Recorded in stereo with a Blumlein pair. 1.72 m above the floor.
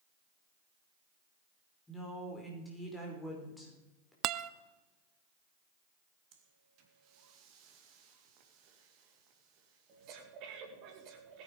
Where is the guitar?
35° right, 0.6 m.